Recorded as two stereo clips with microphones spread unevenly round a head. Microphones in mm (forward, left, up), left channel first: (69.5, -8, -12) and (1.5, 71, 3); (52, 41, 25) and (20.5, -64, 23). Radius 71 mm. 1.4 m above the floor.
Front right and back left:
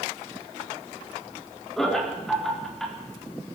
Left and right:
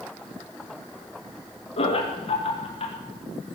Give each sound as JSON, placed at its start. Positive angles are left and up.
{"t": 1.8, "sound": "laughter", "azimuth_deg": 40, "distance_m": 4.0}